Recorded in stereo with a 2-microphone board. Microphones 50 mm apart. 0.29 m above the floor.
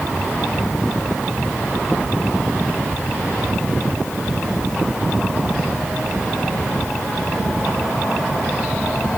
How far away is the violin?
I don't hear a violin.